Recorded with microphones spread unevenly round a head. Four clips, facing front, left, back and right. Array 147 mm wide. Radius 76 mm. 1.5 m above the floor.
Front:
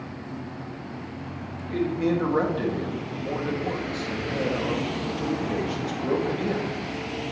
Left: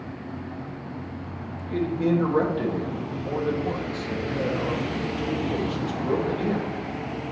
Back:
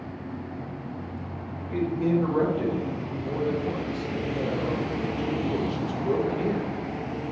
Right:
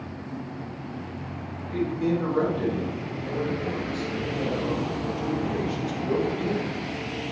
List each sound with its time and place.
1.7 s a man speaking: 25° left, 2 m